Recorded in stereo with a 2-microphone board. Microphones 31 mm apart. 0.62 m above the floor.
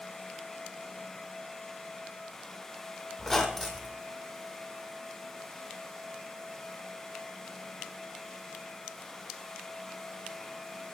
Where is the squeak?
10° left (ahead or behind), 1.2 m.